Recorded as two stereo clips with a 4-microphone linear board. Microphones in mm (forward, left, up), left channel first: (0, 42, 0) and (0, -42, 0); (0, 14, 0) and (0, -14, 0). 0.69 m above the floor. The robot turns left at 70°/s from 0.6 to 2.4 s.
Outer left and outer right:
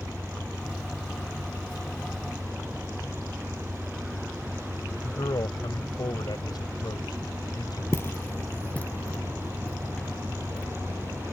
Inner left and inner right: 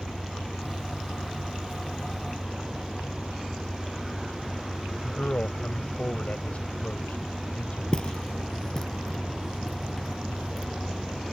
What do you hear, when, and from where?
0.0 s an engine running: 115° left; by 11.3 s 10° right
5.0 s a man speaking: 60° left (ahead or behind)
7.9 s footsteps: 35° left (ahead or behind); by 10.7 s 10° left (ahead or behind)